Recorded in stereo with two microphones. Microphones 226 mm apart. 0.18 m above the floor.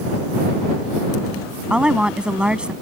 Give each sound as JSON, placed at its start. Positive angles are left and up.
{"t": 1.7, "sound": "a woman speaking", "side_deg": -5}